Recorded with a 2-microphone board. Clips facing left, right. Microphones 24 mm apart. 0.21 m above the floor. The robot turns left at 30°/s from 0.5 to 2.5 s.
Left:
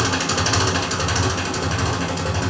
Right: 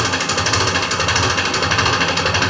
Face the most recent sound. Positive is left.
turn(degrees=-75)